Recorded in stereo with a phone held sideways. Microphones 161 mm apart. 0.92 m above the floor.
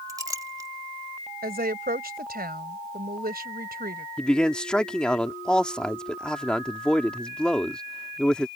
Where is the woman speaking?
75° right (ahead or behind).